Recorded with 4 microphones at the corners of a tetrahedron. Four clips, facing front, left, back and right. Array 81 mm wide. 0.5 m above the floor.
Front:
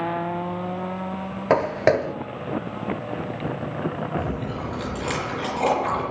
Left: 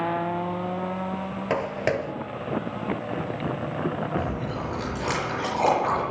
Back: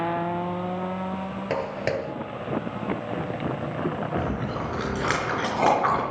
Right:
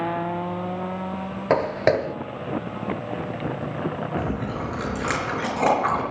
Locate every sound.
1.5 s footsteps: 35° right, 0.5 m
4.2 s chewing: 145° right, 4 m